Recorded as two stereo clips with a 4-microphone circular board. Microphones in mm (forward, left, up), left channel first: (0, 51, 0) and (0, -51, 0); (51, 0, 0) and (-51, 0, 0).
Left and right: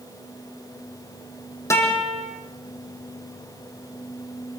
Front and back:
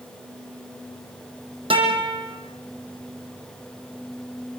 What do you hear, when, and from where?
1.7 s a guitar: 150° left, 5.5 m